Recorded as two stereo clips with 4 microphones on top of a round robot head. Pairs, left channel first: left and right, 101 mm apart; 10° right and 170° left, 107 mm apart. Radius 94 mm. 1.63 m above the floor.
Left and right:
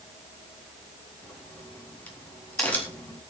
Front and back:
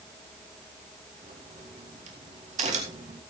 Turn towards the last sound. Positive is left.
turn(degrees=165)